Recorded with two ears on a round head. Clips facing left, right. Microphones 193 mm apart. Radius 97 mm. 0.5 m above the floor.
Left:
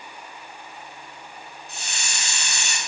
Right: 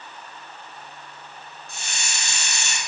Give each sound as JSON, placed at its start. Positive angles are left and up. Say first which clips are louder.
{"t": 1.7, "sound": "a hiss", "louder": "right 1 dB", "side_deg": -40, "distance_m": 0.6}